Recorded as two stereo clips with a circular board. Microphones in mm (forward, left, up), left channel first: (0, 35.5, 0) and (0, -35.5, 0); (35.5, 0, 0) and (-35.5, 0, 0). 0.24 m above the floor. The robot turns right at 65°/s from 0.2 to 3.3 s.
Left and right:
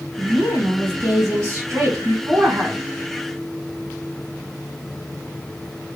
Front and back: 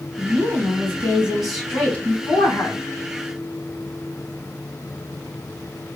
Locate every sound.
0.2 s a woman speaking: 175° right, 1.5 m; by 2.8 s 5° right, 1.5 m